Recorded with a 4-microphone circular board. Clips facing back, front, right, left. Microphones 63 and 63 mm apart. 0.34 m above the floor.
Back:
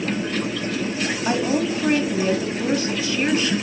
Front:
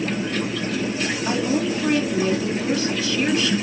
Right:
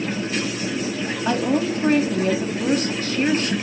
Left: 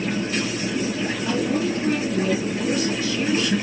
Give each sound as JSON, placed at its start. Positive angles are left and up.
{"t": 1.2, "sound": "a woman speaking", "azimuth_deg": -120, "distance_m": 2.0}